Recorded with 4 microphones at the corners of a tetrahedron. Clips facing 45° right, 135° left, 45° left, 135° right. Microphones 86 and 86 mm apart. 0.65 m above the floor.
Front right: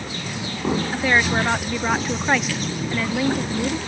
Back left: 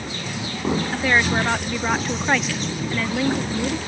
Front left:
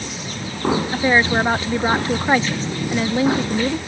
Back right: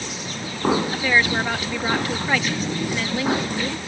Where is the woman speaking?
35° left.